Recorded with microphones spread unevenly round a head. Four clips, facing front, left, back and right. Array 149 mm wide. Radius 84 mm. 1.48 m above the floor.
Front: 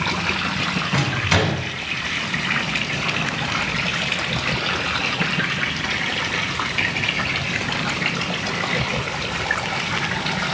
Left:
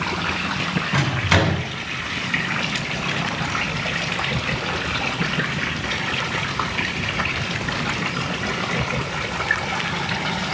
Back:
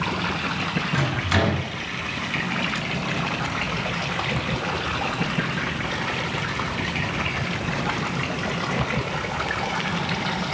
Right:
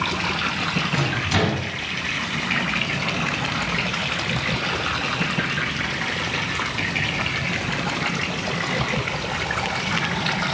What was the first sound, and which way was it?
A microwave, 65° left.